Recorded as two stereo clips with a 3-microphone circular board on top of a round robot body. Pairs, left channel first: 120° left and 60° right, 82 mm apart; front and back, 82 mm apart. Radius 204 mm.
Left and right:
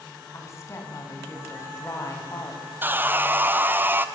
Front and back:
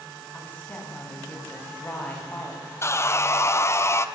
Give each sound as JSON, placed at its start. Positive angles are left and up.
{"t": 0.3, "sound": "a woman speaking", "azimuth_deg": 70, "distance_m": 4.5}
{"t": 2.8, "sound": "sawing", "azimuth_deg": -15, "distance_m": 1.2}